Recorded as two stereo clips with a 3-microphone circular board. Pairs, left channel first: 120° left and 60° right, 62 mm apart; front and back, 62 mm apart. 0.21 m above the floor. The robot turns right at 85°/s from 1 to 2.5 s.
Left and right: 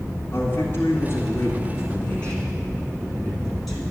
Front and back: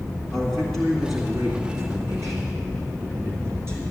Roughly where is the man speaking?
Left.